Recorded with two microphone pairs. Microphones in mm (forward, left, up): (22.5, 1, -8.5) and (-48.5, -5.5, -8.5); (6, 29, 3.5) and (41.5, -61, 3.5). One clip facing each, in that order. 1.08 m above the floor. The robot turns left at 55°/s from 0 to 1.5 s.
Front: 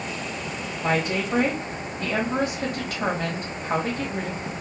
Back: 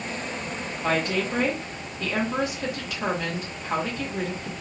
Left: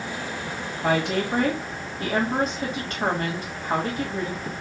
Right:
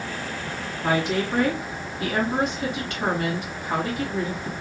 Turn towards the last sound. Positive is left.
turn(degrees=55)